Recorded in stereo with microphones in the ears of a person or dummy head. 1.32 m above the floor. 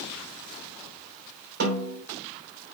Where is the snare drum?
60° right (ahead or behind), 5 m.